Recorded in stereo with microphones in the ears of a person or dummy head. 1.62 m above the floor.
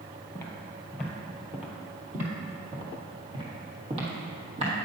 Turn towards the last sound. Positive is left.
turn(degrees=-50)  # may be behind; listen again after turning